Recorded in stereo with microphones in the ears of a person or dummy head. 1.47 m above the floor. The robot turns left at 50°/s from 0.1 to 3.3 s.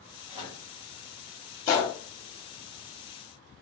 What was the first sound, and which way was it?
A microwave, 35° right (ahead or behind).